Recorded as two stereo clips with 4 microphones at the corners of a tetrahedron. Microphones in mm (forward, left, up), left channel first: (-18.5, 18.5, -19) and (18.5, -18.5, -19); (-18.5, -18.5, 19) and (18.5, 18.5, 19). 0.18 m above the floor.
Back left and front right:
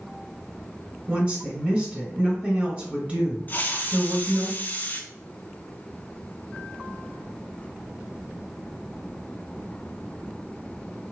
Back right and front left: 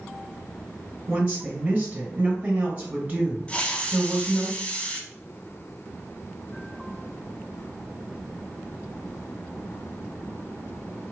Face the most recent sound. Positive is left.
turn(degrees=170)